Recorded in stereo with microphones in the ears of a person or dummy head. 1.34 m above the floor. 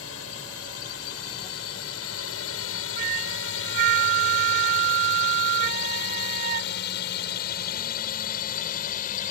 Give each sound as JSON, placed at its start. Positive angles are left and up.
{"t": 0.0, "sound": "a drone", "side_deg": 70}
{"t": 3.0, "sound": "a flute", "side_deg": -55}